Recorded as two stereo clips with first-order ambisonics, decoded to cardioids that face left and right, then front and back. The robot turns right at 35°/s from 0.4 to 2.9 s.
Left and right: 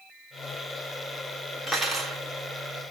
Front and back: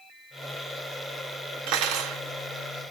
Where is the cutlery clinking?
170° right, 0.9 m; by 2.2 s 150° right, 0.9 m.